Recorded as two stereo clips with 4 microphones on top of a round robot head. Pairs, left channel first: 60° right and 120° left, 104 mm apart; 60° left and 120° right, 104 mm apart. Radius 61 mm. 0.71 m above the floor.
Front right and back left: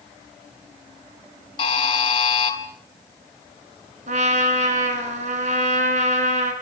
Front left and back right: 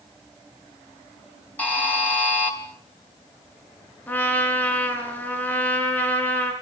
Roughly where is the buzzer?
Ahead.